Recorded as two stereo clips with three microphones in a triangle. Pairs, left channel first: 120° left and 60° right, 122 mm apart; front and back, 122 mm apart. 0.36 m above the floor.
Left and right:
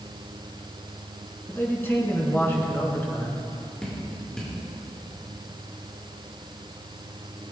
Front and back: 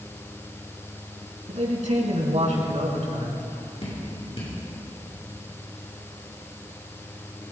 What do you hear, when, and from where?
1.5 s a man speaking: 170° right, 4 m
3.8 s dripping: 35° left, 5.5 m